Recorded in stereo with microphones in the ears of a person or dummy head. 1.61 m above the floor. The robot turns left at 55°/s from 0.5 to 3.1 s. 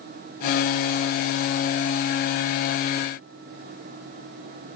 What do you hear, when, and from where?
Only background noise.